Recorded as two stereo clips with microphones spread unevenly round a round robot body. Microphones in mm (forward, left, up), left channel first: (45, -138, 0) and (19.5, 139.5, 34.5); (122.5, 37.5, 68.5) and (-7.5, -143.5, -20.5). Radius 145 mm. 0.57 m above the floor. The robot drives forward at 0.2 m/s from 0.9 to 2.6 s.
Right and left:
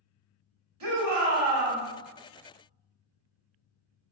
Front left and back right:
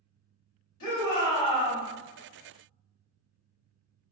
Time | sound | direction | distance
0.8 | a shout | 75° left | 1.9 m